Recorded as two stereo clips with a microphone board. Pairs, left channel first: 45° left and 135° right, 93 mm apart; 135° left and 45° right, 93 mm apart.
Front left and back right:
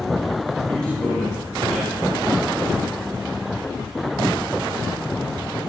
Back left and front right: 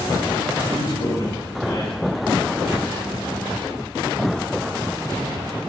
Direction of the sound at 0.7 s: 125° left.